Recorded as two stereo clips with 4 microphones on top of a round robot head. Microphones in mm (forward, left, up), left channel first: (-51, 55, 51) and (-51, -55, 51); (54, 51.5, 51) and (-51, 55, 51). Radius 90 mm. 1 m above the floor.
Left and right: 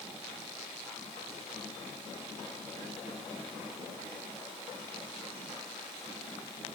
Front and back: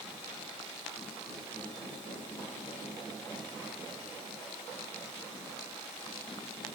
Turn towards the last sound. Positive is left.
No sound to turn to.